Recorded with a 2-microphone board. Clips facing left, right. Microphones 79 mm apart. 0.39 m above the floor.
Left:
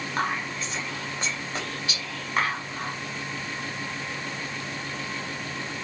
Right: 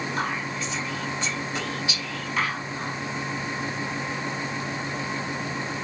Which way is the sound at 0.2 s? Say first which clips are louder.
Left 4 dB; 45° left (ahead or behind).